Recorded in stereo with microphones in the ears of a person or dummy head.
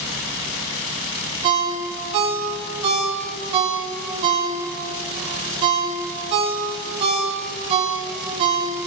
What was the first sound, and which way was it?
A ringtone, 25° right (ahead or behind).